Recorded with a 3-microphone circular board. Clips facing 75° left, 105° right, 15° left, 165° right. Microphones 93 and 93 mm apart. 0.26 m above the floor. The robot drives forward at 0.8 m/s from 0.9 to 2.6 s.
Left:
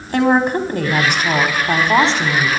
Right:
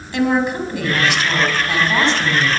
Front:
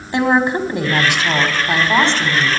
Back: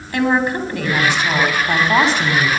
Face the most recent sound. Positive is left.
turn(degrees=125)